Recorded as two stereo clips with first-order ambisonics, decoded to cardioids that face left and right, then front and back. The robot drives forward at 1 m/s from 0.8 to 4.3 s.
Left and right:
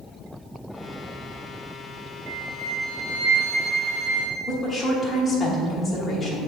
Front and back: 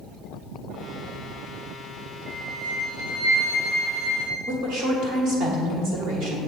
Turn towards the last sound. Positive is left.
turn(degrees=160)